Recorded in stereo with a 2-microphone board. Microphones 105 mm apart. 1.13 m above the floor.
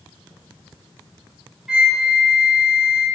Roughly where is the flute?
Centre.